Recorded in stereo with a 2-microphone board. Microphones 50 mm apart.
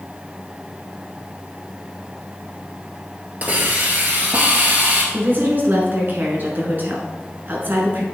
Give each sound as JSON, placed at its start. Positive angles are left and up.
{"t": 3.4, "sound": "a hiss", "side_deg": -30, "distance_m": 1.5}
{"t": 5.1, "sound": "a woman speaking", "side_deg": -45, "distance_m": 1.7}